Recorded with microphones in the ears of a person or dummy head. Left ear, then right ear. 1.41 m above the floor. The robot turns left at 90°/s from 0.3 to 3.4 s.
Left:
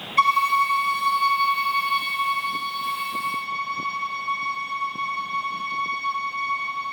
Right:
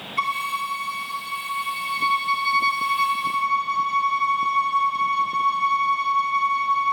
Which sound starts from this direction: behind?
A violin, at 0.2 s.